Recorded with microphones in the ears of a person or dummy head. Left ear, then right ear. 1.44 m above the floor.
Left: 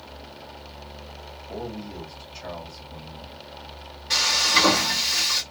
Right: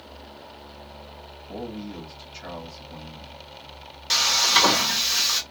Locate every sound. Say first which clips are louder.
1.5 s a man speaking: even; 85° right, 1.9 m
4.1 s frying: right 1 dB; 80° right, 1.1 m